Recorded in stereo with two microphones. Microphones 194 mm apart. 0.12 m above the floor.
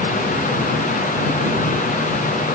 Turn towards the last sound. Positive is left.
No sound to turn to.